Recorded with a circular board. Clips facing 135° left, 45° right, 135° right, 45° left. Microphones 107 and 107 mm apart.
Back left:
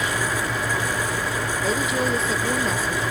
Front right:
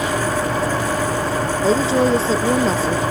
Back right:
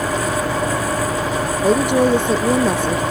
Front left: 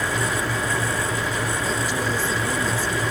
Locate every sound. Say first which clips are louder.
0.0 s an engine running: front right 5 dB, back right 5 dB; 90° right
1.6 s a woman speaking: front right 9 dB, back right 10 dB; 105° right